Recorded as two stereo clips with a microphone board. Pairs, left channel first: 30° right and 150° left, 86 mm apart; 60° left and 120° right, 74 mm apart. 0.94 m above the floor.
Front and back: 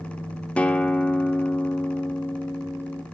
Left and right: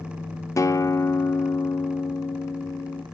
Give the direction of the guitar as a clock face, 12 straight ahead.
11 o'clock.